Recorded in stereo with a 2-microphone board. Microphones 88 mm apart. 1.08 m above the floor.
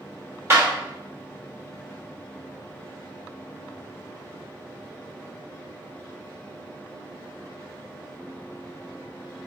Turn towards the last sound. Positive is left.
turn(degrees=-30)  # may be behind; listen again after turning